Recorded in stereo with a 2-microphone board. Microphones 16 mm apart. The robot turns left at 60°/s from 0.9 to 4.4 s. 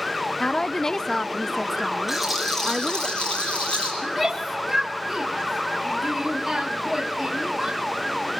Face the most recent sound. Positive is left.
turn(degrees=-5)  # may be behind; listen again after turning